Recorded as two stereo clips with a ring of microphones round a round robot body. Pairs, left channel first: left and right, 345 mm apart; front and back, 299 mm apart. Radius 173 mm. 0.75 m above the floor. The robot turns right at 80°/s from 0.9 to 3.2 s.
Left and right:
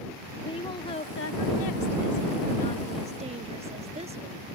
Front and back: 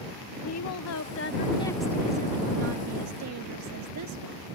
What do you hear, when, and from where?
0.4 s a woman speaking: 15° left; by 4.6 s 160° right